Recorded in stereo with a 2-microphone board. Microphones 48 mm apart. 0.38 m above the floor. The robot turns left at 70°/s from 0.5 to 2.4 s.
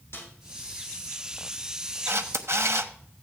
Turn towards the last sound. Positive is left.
turn(degrees=-70)  # may be behind; listen again after turning